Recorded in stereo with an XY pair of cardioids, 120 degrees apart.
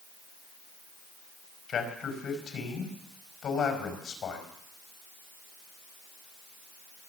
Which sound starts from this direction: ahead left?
A man speaking, at 1.7 s.